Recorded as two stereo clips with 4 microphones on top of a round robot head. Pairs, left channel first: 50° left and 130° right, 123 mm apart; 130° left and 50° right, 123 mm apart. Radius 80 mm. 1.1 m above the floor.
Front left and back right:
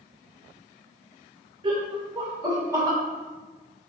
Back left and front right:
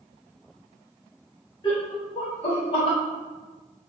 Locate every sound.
1.6 s laughter: 175° right, 0.8 m; by 3.0 s 160° left, 1.5 m